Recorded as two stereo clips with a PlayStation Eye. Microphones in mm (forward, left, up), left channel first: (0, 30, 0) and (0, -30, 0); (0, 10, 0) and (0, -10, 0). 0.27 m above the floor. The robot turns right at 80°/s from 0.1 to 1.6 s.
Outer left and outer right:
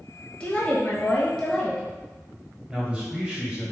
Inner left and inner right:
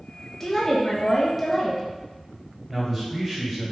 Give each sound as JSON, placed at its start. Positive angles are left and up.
{"t": 0.4, "sound": "a woman speaking", "side_deg": 15, "distance_m": 1.1}
{"t": 2.7, "sound": "a man speaking", "side_deg": -15, "distance_m": 1.4}